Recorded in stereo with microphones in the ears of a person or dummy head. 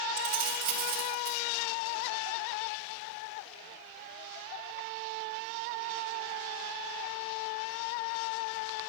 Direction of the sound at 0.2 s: 40° right (ahead or behind).